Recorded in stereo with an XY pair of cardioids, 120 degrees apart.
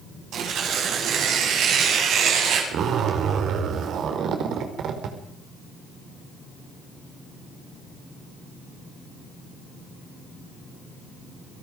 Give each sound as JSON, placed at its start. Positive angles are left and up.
{"t": 0.3, "sound": "tearing paper", "azimuth_deg": -65, "distance_m": 8.0}
{"t": 2.7, "sound": "a zipper", "azimuth_deg": -60, "distance_m": 4.5}